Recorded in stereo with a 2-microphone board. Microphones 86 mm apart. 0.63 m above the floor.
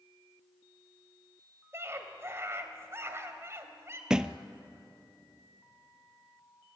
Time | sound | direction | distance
1.7 | a scream | 35° right (ahead or behind) | 3 m
4.1 | a thud | 10° right (ahead or behind) | 0.8 m